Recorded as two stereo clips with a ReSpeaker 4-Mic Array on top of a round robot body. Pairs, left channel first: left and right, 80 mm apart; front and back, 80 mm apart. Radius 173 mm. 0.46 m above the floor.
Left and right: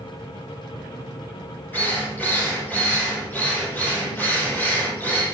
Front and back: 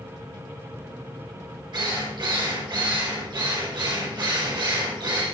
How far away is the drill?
About 9 m.